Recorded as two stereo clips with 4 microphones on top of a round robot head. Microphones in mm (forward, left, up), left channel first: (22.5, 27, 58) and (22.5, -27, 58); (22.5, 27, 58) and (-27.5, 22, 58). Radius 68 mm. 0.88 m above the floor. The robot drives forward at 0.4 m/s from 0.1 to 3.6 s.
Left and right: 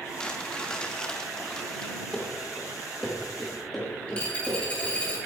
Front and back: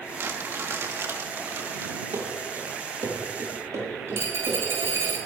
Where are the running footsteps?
165° left, 5 m; by 4.9 s straight behind, 9 m.